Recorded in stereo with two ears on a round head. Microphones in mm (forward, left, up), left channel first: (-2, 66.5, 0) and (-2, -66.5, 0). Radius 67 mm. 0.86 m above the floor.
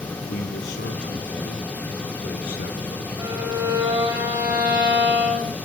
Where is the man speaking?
70° left (ahead or behind), 2 m.